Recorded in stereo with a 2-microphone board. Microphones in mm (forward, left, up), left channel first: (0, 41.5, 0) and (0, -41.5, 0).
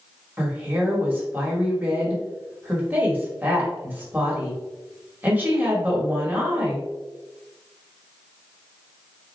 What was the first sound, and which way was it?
A woman speaking, 20° right (ahead or behind).